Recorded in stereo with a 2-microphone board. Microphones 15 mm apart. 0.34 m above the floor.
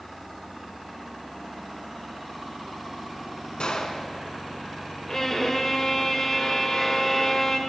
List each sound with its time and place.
3.6 s a gunshot: 60° left (ahead or behind), 0.9 m
5.1 s a violin: 30° left (ahead or behind), 0.8 m